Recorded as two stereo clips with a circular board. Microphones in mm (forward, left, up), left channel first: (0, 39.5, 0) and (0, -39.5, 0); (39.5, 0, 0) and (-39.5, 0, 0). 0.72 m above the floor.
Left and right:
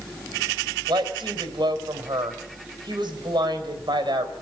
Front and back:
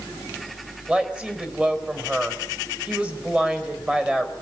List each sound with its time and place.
0.9 s a woman speaking: 105° right, 3.5 m